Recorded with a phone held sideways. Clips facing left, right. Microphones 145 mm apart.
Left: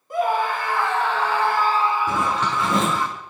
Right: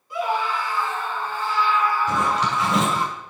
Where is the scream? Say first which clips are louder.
Left 3 dB; 50° left (ahead or behind), 1.6 m; by 3.1 s 10° right (ahead or behind), 1.7 m.